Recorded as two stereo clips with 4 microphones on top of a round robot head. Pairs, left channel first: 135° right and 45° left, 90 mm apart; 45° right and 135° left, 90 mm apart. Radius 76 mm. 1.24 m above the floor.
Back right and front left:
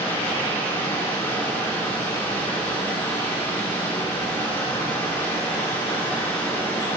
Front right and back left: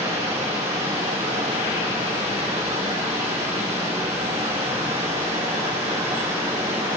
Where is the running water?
160° left, 2.5 m.